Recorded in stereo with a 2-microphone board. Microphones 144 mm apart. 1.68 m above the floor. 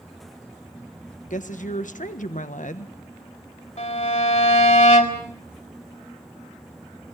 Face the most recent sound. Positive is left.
turn(degrees=50)  # may be behind; listen again after turning